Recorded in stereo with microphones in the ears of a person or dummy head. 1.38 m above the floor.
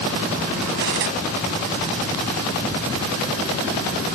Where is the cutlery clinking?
55° right (ahead or behind), 1.0 m.